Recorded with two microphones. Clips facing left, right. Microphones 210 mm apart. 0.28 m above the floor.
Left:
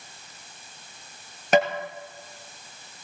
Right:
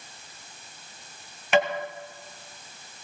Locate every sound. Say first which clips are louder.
1.5 s tapping: left 2 dB; 40° left (ahead or behind), 2.5 m